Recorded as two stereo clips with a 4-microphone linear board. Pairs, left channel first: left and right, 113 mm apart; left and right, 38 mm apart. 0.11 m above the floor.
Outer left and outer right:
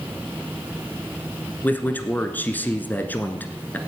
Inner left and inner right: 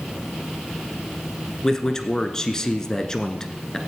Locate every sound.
1.6 s a man speaking: 15° left (ahead or behind), 1.4 m